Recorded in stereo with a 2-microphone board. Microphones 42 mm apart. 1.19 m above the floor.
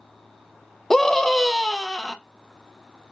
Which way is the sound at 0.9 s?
5° left (ahead or behind).